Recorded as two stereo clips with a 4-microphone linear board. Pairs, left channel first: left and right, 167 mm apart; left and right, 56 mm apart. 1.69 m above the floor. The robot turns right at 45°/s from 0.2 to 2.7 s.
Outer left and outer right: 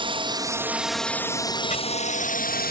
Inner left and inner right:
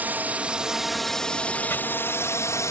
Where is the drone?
35° right; by 2.7 s 80° left.